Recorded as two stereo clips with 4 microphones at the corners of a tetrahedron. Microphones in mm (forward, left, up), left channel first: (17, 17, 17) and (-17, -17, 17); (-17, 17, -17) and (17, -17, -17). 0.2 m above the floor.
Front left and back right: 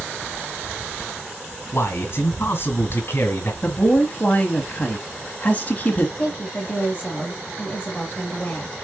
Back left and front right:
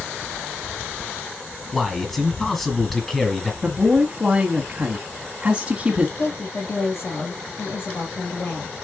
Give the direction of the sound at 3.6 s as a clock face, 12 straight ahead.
12 o'clock.